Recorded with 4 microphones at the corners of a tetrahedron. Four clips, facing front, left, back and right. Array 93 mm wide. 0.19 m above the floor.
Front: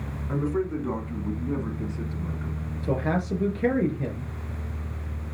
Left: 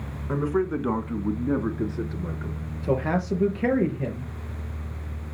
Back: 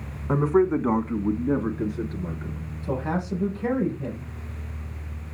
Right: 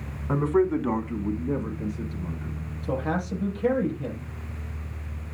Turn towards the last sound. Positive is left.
turn(degrees=60)